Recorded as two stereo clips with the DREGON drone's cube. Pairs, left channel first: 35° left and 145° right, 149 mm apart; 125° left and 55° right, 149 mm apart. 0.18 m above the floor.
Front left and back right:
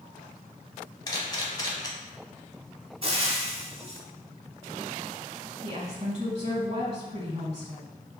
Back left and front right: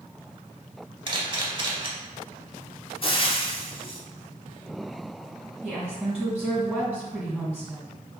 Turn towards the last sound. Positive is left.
turn(degrees=-130)